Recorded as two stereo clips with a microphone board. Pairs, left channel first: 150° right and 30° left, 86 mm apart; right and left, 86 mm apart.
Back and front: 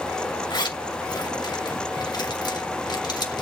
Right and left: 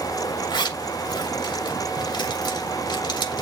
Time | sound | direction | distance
0.5 | a zipper | 120° right | 2.5 m